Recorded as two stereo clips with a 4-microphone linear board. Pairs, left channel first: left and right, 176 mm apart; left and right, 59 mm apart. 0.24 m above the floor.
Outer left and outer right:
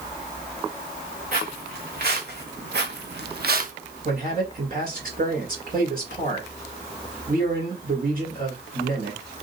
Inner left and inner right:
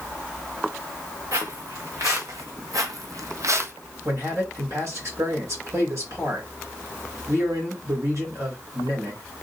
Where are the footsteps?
55° right (ahead or behind), 1.8 m; by 3.7 s 45° right (ahead or behind), 0.6 m.